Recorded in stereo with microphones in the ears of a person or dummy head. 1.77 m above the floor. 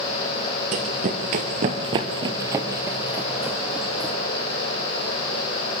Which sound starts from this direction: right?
Running footsteps, at 0.7 s.